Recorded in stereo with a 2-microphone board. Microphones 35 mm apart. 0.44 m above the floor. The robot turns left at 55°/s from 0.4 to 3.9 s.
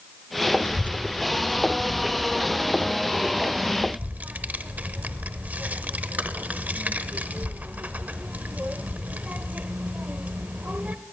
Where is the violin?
No violin in this recording.